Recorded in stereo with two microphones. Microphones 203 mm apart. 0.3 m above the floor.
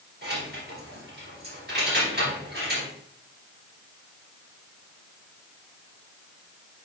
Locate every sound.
0.2 s keys jangling: 50° right (ahead or behind), 3 m